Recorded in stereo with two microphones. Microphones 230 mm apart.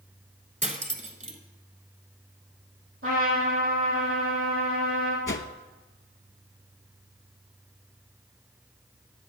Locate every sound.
0.6 s cutlery clinking: 30° right (ahead or behind), 1.0 m
3.0 s a trumpet: 65° right (ahead or behind), 5 m
5.3 s a whoosh: 55° left (ahead or behind), 0.6 m